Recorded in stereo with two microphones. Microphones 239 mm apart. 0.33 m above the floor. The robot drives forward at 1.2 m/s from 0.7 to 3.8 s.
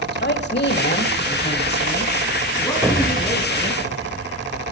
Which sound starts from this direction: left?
A woman speaking, at 0.1 s.